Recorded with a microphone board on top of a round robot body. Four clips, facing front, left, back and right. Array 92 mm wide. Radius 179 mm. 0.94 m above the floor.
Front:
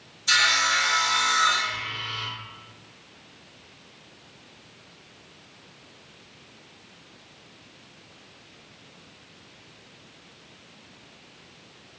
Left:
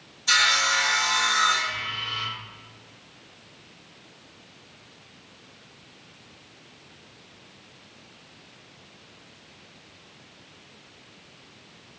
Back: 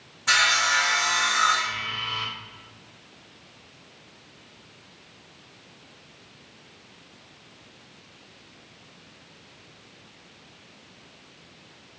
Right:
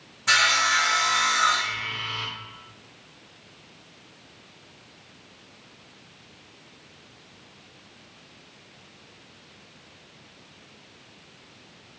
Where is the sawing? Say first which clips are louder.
Right 1 dB, back 1 dB; 135° right, 1.0 m.